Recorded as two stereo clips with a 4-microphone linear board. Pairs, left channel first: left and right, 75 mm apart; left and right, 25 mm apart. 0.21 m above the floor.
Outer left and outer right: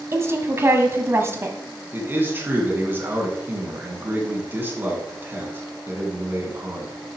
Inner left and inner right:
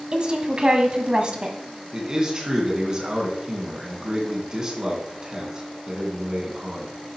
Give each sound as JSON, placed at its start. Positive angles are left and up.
{"t": 0.1, "sound": "a woman speaking", "side_deg": -35, "distance_m": 1.4}
{"t": 1.9, "sound": "a man speaking", "side_deg": -25, "distance_m": 2.5}